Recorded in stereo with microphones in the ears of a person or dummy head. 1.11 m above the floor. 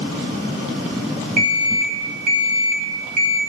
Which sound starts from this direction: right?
An alarm clock, at 1.4 s.